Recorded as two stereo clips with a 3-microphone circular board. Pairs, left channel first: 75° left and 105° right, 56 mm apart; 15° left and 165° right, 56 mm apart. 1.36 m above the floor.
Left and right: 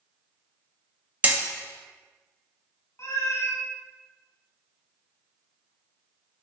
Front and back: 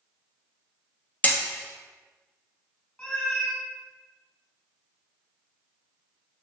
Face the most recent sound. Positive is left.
turn(degrees=80)